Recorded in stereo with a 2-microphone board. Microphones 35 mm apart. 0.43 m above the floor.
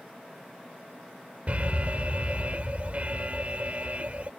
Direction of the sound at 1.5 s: 45° right (ahead or behind).